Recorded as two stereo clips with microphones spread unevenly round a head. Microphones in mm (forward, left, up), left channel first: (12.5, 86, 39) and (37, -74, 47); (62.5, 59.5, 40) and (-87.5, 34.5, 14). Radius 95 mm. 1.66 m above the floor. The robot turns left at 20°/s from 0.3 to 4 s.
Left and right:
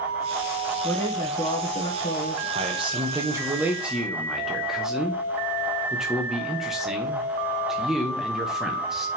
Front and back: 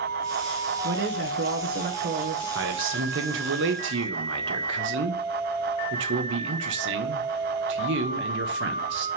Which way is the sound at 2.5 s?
140° right.